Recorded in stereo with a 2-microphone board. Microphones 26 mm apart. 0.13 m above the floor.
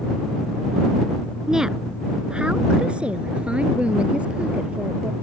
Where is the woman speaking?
20° right (ahead or behind); by 5.1 s 45° right (ahead or behind).